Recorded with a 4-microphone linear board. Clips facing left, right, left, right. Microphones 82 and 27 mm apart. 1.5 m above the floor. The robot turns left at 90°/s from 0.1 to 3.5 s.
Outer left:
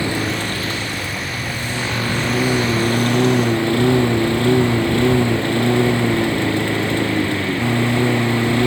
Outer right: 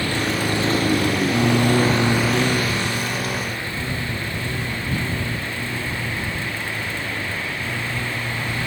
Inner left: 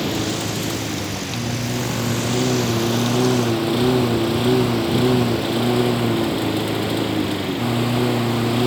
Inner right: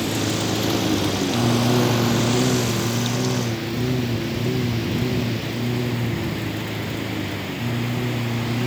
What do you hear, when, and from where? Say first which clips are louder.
0.0 s a lawn mower: outer left 1 dB, even; 20° left; by 8.7 s 75° left